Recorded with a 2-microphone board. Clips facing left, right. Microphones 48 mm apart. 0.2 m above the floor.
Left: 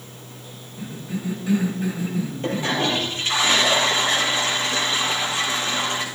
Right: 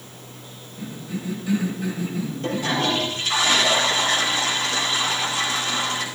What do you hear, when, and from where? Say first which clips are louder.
0.8 s a cough: left 1 dB; 20° left (ahead or behind), 5.5 m
2.4 s a toilet flushing: even; 25° left (ahead or behind), 3.5 m